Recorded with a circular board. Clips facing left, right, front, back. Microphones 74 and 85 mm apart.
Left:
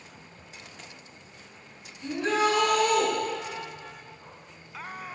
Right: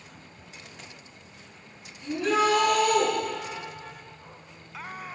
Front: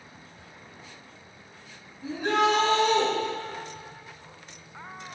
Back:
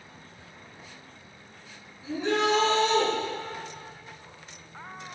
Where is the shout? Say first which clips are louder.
Right 1 dB, front 2 dB; 40° left, 4 m.